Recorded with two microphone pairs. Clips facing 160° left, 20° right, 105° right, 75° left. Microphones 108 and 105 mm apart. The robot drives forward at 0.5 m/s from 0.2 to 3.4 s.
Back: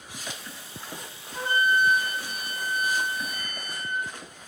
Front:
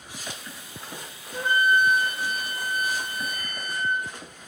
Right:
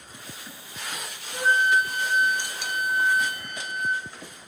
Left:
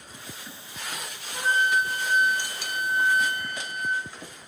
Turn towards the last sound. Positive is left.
turn(degrees=-75)